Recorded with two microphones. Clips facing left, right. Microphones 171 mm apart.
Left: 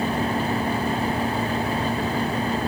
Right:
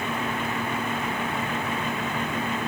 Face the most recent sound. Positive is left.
No sound to turn to.